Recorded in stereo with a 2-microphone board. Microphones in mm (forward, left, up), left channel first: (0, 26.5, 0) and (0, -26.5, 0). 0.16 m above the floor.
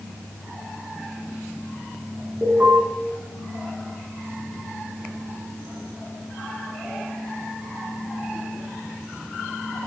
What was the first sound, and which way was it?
An alarm, 50° right (ahead or behind).